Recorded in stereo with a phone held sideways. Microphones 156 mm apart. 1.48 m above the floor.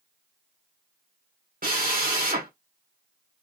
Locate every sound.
1.6 s a drill: 65° right (ahead or behind), 1.7 m